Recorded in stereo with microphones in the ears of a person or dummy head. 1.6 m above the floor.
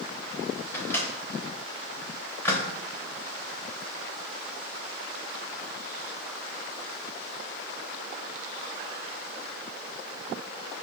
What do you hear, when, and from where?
0.7 s a microwave: 15° left (ahead or behind), 0.6 m